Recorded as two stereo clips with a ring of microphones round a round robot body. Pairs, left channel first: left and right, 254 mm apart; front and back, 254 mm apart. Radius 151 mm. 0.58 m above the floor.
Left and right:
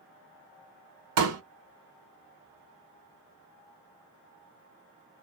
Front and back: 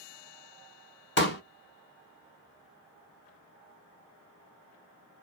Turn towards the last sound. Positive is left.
turn(degrees=-50)